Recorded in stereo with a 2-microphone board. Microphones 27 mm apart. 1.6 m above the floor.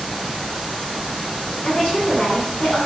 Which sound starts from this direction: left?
A woman speaking, at 1.6 s.